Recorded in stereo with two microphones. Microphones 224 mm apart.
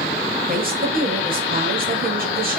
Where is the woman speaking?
45° right (ahead or behind), 5.5 m.